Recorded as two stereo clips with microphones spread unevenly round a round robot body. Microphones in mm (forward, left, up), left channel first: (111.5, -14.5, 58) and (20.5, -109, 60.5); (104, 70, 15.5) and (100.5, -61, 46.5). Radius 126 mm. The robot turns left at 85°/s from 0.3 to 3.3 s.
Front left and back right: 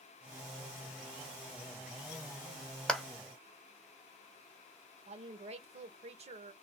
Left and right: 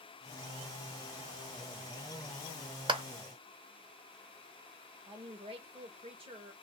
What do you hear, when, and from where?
2.9 s a clap: 35° right, 1.5 m; by 3.0 s 50° right, 1.5 m
5.1 s a woman speaking: 145° right, 1.3 m